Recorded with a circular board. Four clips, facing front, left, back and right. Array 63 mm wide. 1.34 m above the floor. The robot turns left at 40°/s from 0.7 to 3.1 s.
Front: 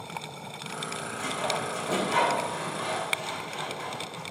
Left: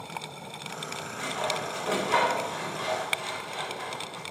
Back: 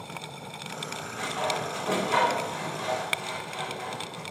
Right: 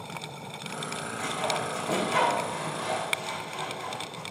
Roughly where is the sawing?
Behind left.